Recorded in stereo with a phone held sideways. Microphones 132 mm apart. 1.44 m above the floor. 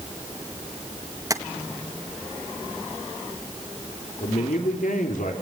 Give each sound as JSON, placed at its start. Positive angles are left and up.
{"t": 1.3, "sound": "tapping", "side_deg": -25, "distance_m": 1.7}
{"t": 4.2, "sound": "a man speaking", "side_deg": 80, "distance_m": 3.5}